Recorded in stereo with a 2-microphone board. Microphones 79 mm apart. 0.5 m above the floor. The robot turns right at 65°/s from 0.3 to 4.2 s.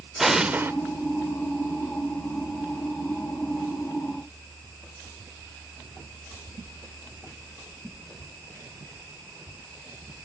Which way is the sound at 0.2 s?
5° right (ahead or behind).